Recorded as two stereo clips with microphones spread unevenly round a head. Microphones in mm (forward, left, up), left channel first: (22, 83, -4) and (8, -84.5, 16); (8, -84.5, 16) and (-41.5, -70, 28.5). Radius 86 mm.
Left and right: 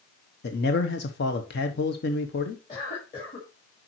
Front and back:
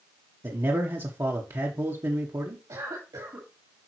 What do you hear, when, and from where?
0.4 s a man speaking: 110° left, 0.9 m
2.7 s a cough: 145° left, 2 m